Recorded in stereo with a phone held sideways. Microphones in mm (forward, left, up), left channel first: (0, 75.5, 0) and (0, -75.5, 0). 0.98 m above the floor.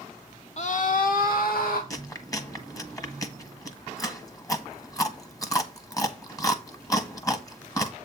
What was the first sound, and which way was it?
A scream, 50° left (ahead or behind).